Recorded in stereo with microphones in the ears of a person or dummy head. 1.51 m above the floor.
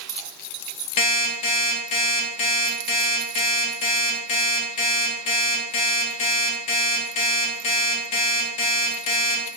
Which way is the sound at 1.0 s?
40° left (ahead or behind).